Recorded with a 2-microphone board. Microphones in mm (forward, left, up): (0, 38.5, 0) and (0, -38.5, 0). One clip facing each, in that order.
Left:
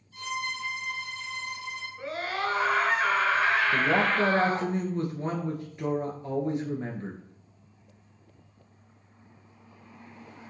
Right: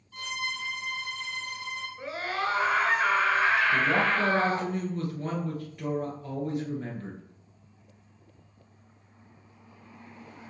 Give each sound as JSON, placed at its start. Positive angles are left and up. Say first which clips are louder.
{"t": 0.1, "sound": "a violin", "louder": "left 2 dB", "side_deg": -65, "distance_m": 4.0}
{"t": 2.0, "sound": "a scream", "louder": "even", "side_deg": -5, "distance_m": 1.6}
{"t": 3.7, "sound": "a man speaking", "louder": "even", "side_deg": 25, "distance_m": 2.0}